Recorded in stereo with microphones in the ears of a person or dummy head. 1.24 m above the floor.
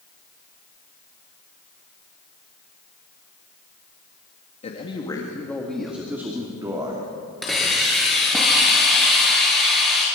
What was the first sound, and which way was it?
A man speaking, 30° left (ahead or behind).